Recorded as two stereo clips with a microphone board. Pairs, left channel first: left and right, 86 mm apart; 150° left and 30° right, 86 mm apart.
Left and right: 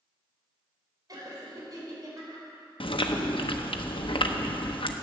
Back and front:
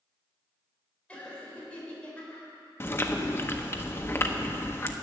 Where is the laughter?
135° right, 4 m.